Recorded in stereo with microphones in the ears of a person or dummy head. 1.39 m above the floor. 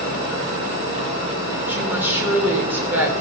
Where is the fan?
70° right (ahead or behind), 5.5 m.